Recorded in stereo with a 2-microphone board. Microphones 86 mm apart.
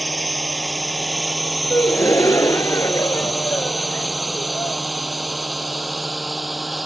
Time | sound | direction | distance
0.0 | a drone | centre (ahead or behind) | ?
1.7 | a gasp | 35° left (ahead or behind) | ?